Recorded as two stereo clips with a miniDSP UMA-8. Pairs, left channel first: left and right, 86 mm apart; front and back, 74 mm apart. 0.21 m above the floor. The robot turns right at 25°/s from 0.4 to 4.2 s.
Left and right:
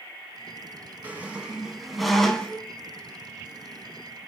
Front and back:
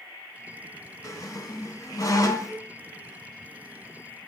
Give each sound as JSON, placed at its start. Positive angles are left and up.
{"t": 1.0, "sound": "a squeak", "azimuth_deg": -25, "distance_m": 0.6}